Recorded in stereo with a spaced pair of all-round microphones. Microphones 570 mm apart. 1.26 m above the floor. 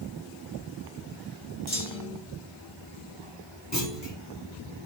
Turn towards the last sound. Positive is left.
turn(degrees=30)  # may be behind; listen again after turning